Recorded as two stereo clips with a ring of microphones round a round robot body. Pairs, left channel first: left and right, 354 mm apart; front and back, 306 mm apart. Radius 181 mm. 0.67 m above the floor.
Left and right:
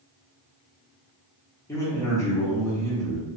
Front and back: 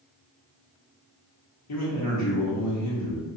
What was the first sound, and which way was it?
A man speaking, 10° left.